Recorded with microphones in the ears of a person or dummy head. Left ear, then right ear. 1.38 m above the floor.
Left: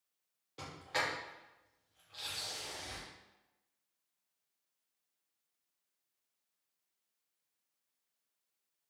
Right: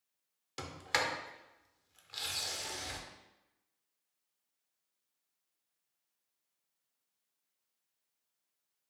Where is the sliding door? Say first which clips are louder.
Right 3 dB; 50° right (ahead or behind), 0.6 m.